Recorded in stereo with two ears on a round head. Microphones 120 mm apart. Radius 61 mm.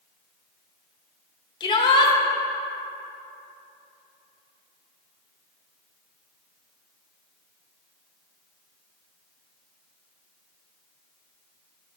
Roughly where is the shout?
Left.